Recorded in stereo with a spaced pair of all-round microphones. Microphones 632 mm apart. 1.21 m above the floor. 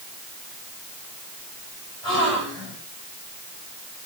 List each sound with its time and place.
2.0 s a gasp: 20° right (ahead or behind), 7.5 m